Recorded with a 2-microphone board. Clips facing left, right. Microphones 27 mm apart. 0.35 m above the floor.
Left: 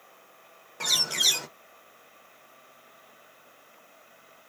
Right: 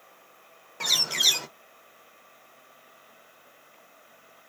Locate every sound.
0.8 s a bird: 5° right (ahead or behind), 0.5 m